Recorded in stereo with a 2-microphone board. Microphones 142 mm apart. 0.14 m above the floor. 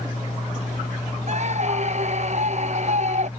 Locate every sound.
1.3 s a scream: 55° right (ahead or behind)